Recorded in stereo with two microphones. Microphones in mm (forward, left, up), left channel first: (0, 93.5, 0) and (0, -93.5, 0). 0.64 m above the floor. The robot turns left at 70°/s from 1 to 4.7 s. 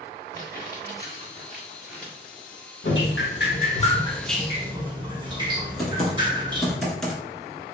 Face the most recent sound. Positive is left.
turn(degrees=0)  # may be behind; listen again after turning